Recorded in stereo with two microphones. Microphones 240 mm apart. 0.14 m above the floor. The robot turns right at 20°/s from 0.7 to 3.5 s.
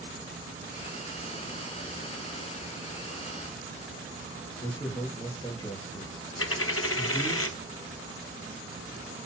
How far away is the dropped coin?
About 0.8 m.